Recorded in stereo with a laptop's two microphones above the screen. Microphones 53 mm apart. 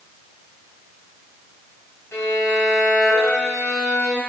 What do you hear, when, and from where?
2.1 s a violin: 60° left (ahead or behind), 4 m